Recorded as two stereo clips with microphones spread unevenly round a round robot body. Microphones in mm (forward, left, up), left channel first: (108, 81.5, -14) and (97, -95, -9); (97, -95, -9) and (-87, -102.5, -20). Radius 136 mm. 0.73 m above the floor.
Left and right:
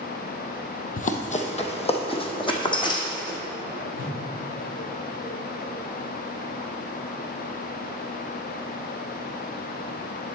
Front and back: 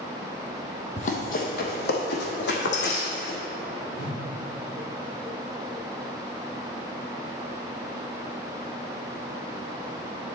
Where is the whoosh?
50° left, 2 m.